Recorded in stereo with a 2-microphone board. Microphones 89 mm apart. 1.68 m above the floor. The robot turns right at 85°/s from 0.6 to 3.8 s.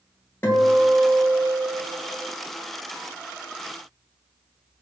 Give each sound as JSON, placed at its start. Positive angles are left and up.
{"t": 0.4, "sound": "a guitar", "side_deg": 25, "distance_m": 1.0}